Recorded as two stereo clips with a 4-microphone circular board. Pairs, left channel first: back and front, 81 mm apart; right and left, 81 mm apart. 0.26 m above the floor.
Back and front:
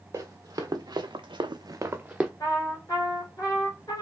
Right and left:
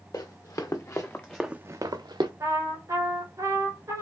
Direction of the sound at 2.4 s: 140° left.